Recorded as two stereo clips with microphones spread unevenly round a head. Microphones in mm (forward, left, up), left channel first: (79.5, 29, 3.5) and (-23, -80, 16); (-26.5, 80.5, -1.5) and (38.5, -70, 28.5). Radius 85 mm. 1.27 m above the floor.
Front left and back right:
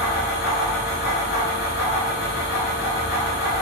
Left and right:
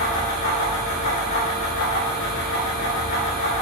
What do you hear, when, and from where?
0.0 s a fan: 75° left, 1.9 m